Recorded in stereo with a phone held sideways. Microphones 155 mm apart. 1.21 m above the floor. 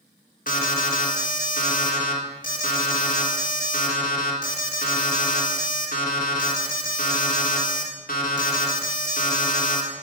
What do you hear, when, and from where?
0.5 s an alarm: 70° left (ahead or behind), 1.3 m